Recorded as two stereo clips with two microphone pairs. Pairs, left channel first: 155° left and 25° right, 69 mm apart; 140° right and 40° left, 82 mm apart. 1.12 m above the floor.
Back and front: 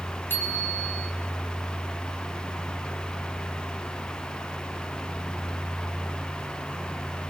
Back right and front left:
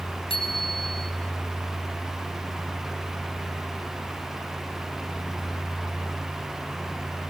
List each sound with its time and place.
0.3 s a bicycle bell: 140° right, 5.5 m